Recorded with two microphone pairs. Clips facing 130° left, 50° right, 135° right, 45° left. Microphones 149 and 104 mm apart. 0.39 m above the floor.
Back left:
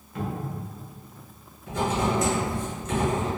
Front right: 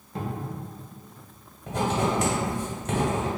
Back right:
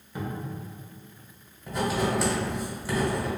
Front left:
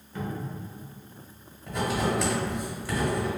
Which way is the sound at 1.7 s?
45° right.